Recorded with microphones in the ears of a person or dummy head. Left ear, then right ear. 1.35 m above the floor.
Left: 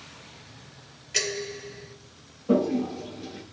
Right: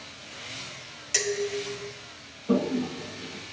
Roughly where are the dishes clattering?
Right.